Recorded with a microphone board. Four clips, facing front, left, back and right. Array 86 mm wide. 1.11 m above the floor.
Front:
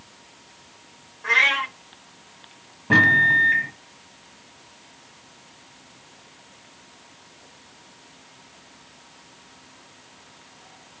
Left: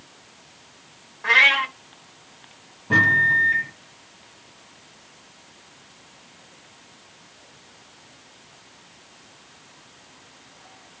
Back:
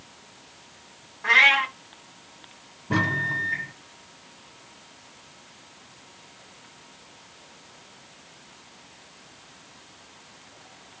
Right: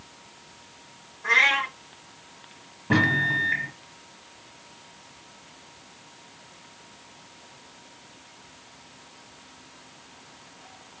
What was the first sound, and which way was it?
A cat meowing, 110° left.